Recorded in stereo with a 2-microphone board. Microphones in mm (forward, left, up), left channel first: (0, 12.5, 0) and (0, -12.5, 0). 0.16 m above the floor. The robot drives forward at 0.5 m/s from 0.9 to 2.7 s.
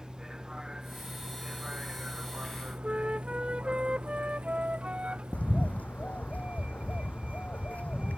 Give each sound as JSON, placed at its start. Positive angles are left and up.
{"t": 0.0, "sound": "a vehicle", "side_deg": -15}
{"t": 2.8, "sound": "a flute", "side_deg": -40}
{"t": 5.3, "sound": "a bird", "side_deg": 80}